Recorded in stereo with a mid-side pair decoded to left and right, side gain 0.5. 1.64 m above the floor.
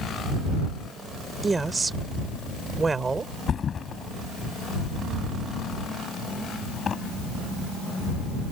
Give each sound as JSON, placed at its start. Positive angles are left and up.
{"t": 1.4, "sound": "a woman speaking", "azimuth_deg": -25}
{"t": 3.5, "sound": "a thud", "azimuth_deg": 40}